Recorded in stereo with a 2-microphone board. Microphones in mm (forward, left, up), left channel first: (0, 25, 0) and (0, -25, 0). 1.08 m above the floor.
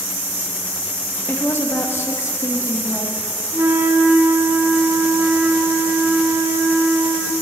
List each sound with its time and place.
1.3 s a woman speaking: 40° left (ahead or behind), 0.8 m; by 3.3 s 85° left, 1.4 m
3.5 s a flute: 45° right (ahead or behind), 0.6 m